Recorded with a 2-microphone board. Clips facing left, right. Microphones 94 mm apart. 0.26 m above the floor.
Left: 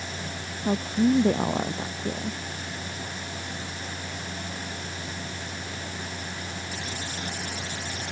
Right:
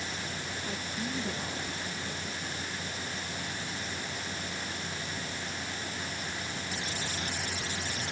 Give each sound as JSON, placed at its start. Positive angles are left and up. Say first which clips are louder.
{"t": 0.6, "sound": "a woman speaking", "louder": "left 17 dB", "side_deg": 60}